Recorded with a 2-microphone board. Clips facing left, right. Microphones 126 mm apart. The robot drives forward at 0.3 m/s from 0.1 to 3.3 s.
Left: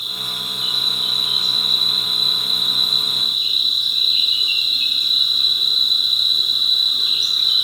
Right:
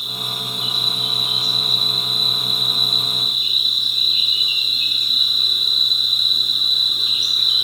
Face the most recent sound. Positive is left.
turn(degrees=-50)  # may be behind; listen again after turning